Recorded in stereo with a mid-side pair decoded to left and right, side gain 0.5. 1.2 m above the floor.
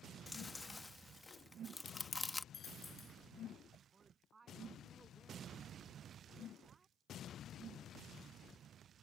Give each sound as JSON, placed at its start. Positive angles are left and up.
{"t": 0.3, "sound": "chewing", "azimuth_deg": 15}
{"t": 2.5, "sound": "a dropped coin", "azimuth_deg": 40}
{"t": 3.9, "sound": "a woman speaking", "azimuth_deg": -30}